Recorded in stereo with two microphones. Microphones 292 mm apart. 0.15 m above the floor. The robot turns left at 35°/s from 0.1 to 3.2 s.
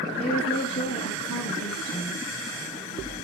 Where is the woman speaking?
155° left, 4 m; by 2.2 s 85° left, 4 m.